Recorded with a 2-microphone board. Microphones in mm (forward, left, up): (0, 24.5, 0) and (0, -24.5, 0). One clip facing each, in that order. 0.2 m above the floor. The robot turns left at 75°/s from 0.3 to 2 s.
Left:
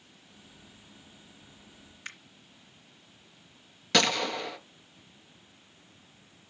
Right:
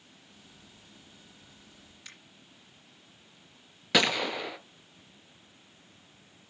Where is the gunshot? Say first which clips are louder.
Even; 10° right (ahead or behind), 0.6 m.